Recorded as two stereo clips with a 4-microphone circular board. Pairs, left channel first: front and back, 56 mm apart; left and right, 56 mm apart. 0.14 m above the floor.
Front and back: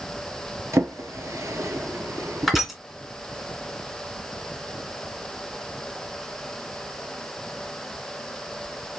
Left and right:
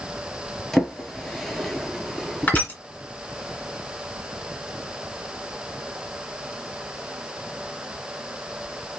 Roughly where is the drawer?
Behind.